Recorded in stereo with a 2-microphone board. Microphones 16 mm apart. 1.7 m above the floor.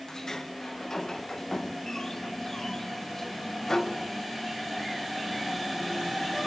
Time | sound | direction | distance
0.1 | a sliding door | 45° left (ahead or behind) | 1.5 m